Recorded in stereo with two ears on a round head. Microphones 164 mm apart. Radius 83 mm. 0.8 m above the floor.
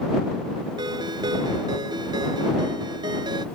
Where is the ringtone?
25° right (ahead or behind).